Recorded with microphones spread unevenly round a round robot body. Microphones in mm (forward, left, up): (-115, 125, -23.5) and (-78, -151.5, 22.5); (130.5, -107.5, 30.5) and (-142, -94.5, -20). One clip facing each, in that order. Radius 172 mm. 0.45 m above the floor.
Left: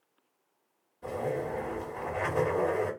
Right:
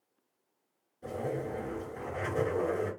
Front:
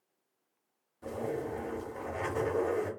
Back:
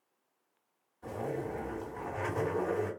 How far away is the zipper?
About 1.4 m.